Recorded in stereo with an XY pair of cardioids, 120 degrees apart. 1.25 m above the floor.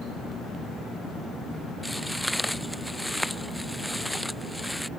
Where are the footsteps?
5° left.